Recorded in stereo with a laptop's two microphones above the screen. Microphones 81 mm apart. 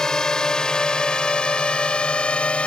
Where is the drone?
5° left (ahead or behind); by 2.7 s 15° left (ahead or behind).